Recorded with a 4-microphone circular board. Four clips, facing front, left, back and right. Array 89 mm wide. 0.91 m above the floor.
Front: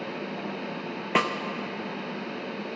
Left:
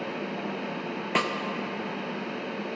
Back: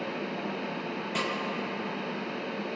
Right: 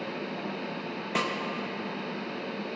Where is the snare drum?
15° left, 0.6 m.